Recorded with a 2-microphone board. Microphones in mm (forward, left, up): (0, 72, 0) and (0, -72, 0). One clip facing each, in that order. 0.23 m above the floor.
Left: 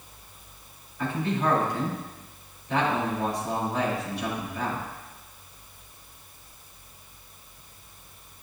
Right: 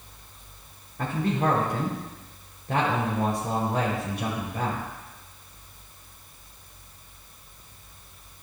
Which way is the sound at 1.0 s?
50° right (ahead or behind).